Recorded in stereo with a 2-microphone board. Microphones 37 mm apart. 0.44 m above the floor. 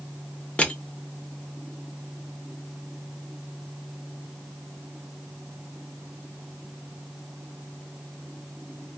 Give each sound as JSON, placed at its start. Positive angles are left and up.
{"t": 0.6, "sound": "crushing", "side_deg": 35, "distance_m": 0.6}